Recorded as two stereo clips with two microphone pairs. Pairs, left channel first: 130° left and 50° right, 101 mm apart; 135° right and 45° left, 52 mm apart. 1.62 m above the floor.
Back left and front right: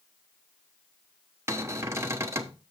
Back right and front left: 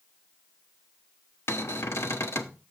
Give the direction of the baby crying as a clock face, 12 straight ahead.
No baby crying in this recording.